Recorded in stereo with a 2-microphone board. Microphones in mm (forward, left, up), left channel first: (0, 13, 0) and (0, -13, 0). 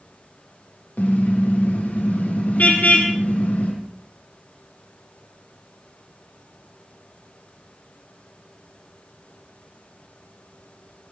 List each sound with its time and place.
1.0 s a car horn: 80° left, 5 m